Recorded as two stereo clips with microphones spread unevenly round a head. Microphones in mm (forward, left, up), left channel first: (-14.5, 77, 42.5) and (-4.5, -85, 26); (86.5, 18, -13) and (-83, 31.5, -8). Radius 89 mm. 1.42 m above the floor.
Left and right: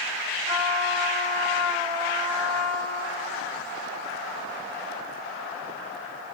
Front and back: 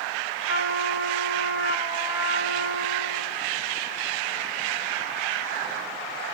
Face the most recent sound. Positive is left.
turn(degrees=20)